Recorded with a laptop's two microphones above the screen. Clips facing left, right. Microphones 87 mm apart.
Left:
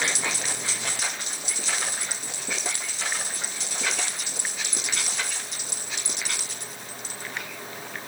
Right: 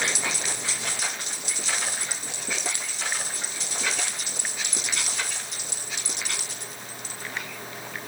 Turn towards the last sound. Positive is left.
No sound to turn to.